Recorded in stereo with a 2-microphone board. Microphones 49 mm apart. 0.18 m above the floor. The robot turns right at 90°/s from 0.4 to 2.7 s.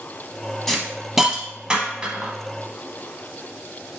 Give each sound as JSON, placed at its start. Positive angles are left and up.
{"t": 0.7, "sound": "a hiss", "side_deg": 5, "distance_m": 0.8}